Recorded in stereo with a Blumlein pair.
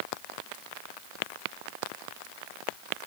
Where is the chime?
No chime in this recording.